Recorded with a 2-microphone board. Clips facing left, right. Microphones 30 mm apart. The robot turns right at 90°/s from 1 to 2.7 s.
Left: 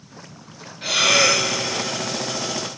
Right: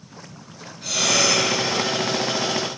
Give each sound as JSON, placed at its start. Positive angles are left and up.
{"t": 0.8, "sound": "breathing", "azimuth_deg": 40, "distance_m": 3.0}